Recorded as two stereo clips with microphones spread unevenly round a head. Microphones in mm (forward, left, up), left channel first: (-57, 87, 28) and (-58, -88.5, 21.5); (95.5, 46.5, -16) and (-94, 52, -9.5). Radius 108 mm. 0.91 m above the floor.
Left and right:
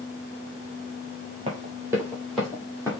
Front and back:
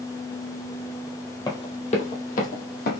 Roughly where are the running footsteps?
Ahead right.